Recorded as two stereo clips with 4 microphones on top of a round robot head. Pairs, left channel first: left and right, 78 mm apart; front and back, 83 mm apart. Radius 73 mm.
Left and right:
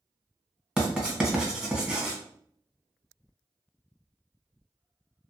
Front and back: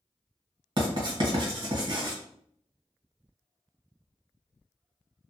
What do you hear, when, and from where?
0.8 s writing: 170° right, 1.3 m